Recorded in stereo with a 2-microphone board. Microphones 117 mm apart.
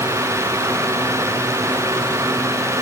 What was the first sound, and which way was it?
Only background noise.